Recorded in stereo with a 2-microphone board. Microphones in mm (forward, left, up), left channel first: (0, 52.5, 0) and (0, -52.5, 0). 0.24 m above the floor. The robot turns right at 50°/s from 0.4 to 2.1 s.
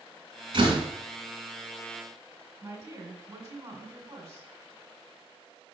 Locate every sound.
0.5 s a door slam: 50° right (ahead or behind), 1.9 m; by 0.8 s 40° right (ahead or behind), 1.9 m
2.6 s a woman speaking: 20° right (ahead or behind), 1.6 m